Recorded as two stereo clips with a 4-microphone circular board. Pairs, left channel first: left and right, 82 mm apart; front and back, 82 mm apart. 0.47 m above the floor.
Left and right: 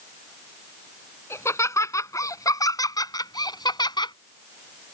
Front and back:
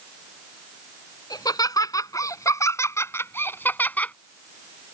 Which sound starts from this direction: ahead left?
Laughter, at 1.3 s.